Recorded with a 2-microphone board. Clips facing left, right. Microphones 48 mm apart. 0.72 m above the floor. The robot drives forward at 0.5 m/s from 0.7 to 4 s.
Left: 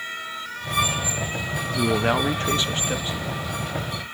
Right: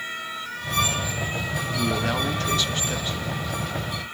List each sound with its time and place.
1.8 s a man speaking: 30° left (ahead or behind), 0.5 m; by 3.5 s 15° left (ahead or behind), 0.9 m